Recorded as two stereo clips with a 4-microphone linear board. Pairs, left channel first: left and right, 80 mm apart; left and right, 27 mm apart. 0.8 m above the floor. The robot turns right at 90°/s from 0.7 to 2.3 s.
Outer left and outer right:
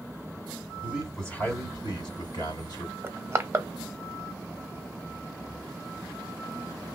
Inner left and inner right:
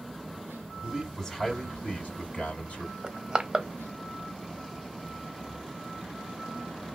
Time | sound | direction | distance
0.8 | a man speaking | 30° right | 2.5 m
3.0 | crushing | 35° right (ahead or behind) | 0.6 m